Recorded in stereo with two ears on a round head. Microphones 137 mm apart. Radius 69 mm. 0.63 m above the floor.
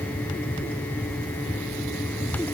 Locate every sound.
Only background noise.